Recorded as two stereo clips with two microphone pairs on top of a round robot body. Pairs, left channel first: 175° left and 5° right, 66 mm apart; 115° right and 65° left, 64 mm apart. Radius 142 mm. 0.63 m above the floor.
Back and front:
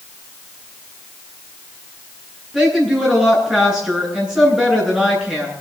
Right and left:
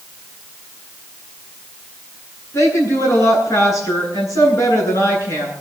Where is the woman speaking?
85° right, 10 m.